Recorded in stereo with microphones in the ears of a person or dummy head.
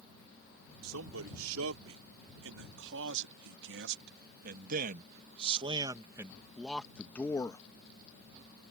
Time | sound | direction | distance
0.8 | a man speaking | 80° right | ?